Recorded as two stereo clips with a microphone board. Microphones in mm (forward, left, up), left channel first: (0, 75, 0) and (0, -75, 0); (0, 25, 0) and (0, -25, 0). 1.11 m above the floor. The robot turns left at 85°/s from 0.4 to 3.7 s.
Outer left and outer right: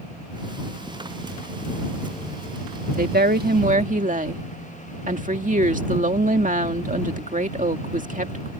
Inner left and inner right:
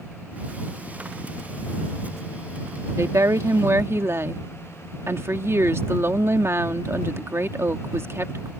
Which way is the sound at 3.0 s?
60° right.